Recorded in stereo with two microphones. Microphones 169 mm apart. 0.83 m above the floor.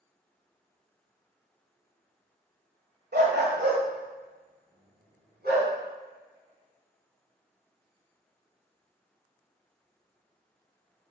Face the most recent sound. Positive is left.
turn(degrees=-70)  # may be behind; listen again after turning